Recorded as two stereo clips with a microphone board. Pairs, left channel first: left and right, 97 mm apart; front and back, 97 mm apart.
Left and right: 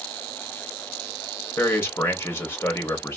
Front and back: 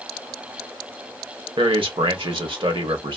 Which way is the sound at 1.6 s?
155° left.